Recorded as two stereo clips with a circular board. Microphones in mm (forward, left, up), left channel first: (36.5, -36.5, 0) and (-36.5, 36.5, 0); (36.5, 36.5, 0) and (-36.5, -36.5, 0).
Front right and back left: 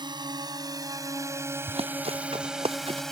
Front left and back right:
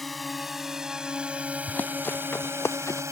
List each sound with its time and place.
0.0 s a drone: 135° left; by 3.1 s 125° right
1.7 s running footsteps: 120° left; by 3.0 s 110° left